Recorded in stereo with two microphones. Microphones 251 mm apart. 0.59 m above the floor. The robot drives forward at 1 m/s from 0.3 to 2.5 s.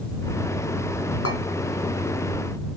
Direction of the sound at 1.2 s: 70° left (ahead or behind).